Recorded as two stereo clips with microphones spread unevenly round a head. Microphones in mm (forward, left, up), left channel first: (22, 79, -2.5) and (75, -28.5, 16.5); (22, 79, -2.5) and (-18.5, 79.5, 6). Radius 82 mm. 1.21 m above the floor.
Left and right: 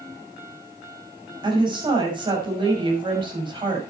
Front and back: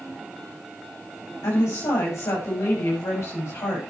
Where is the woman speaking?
15° right, 6 m.